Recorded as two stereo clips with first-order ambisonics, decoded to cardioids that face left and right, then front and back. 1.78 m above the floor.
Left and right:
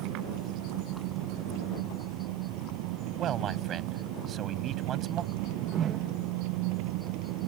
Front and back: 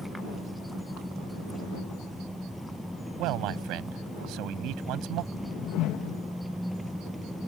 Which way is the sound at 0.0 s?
90° right.